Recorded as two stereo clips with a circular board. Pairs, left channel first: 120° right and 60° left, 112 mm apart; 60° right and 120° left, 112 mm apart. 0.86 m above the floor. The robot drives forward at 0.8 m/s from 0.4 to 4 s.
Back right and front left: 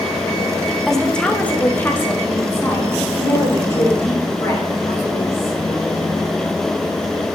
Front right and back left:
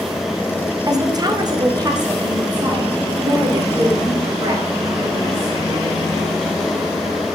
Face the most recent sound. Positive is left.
turn(degrees=175)